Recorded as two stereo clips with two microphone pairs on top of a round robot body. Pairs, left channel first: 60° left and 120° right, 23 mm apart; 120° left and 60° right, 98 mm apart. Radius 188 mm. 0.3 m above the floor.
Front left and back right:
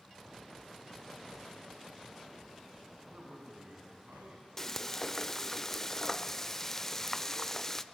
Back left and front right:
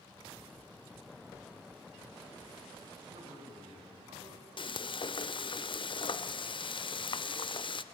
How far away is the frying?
About 0.9 m.